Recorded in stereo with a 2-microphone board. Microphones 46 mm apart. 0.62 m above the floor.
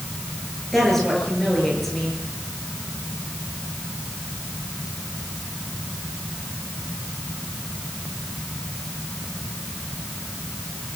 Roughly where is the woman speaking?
Centre.